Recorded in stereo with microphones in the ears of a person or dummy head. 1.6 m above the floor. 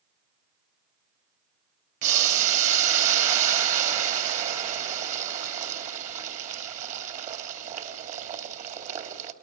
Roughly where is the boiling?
Right.